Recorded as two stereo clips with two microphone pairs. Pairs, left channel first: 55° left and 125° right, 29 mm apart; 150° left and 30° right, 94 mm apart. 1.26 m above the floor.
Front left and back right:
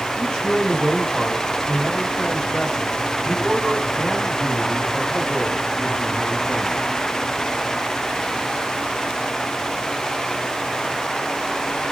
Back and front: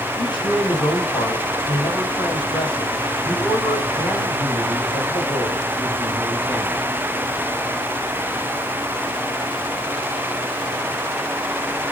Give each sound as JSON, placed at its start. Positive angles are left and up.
{"t": 0.2, "sound": "a man speaking", "azimuth_deg": 120, "distance_m": 8.0}